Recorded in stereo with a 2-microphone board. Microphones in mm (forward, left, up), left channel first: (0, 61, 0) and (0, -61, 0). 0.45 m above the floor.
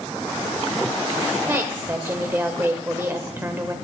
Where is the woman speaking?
20° right (ahead or behind), 1.4 m.